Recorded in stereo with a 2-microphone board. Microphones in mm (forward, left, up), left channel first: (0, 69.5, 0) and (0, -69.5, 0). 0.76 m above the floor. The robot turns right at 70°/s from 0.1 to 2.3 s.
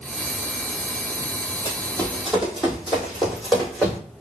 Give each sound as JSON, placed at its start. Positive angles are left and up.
{"t": 1.6, "sound": "running footsteps", "side_deg": 30, "distance_m": 1.4}